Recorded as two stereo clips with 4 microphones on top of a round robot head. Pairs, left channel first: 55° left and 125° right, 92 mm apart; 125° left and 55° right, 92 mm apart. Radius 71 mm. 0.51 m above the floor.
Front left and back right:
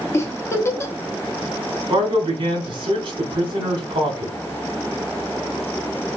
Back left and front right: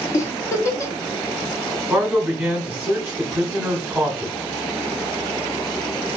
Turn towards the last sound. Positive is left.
turn(degrees=-125)